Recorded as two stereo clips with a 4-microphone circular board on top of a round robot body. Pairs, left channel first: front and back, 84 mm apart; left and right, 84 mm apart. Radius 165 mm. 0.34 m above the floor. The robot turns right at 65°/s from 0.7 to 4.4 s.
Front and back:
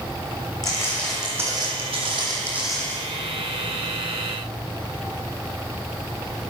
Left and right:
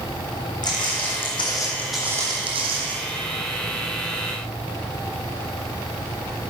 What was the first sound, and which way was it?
Footsteps, 50° left.